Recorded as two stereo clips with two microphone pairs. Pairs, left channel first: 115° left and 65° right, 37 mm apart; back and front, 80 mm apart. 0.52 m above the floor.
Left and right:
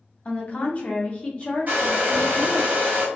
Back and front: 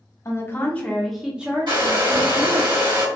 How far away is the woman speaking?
About 0.9 m.